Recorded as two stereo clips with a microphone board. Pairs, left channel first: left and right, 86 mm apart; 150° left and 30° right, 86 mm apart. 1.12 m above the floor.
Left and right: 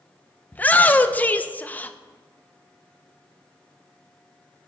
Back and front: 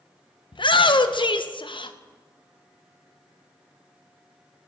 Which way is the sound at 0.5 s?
160° left.